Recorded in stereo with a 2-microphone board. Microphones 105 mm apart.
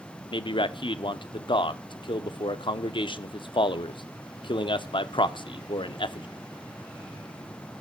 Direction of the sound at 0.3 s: 55° left (ahead or behind).